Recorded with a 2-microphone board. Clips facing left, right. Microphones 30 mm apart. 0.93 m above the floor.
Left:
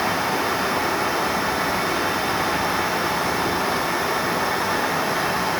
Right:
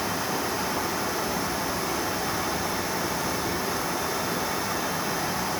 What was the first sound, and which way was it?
Only background noise.